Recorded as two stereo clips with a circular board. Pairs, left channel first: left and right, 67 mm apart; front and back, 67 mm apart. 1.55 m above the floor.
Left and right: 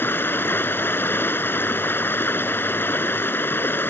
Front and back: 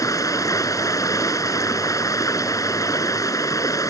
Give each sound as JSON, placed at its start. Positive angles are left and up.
{"t": 0.0, "sound": "running water", "azimuth_deg": 35}